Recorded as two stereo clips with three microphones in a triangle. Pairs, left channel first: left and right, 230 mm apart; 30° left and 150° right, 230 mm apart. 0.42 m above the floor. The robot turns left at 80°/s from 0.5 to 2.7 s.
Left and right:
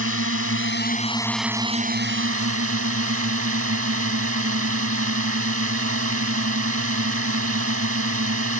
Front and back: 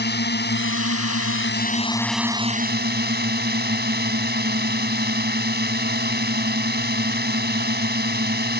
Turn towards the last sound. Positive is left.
turn(degrees=-105)